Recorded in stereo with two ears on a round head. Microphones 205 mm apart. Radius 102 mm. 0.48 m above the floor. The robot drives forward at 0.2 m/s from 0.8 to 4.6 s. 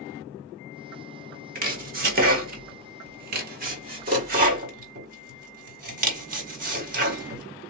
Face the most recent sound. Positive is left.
turn(degrees=-40)  # may be behind; listen again after turning